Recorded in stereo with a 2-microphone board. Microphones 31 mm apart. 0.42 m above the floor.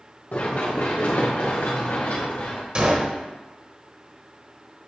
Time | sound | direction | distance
0.3 | running footsteps | 60° left (ahead or behind) | 2.5 m
2.8 | a gunshot | 30° right (ahead or behind) | 1.2 m